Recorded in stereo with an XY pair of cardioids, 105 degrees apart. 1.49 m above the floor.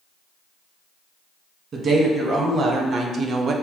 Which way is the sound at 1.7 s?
60° right.